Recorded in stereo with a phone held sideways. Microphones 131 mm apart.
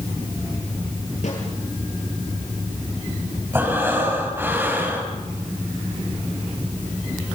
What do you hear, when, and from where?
1.2 s a snare drum: 65° left (ahead or behind), 8.5 m
3.5 s breathing: 15° right (ahead or behind), 5.5 m